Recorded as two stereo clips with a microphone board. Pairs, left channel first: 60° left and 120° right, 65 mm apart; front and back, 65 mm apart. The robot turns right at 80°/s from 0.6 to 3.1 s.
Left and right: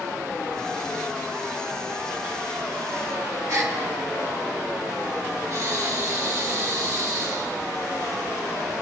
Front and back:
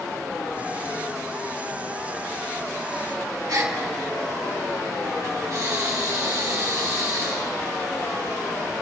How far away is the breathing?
About 1.8 m.